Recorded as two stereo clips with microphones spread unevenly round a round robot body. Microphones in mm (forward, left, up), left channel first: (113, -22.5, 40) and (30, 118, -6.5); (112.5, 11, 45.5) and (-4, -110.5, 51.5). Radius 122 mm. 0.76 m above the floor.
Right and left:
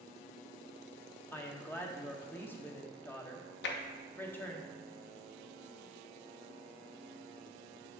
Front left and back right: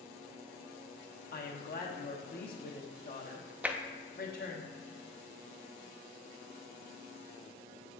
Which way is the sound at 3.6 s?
50° right.